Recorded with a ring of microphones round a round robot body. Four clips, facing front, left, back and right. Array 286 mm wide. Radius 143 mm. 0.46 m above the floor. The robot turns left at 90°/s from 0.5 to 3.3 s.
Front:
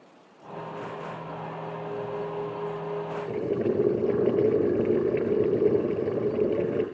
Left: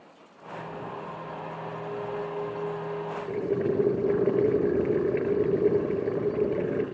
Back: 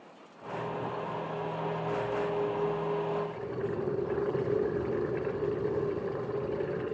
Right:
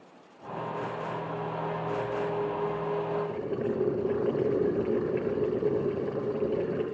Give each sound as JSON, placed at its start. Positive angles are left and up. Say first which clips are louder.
{"t": 3.3, "sound": "boiling", "louder": "left 4 dB, front 8 dB", "azimuth_deg": 40, "distance_m": 7.0}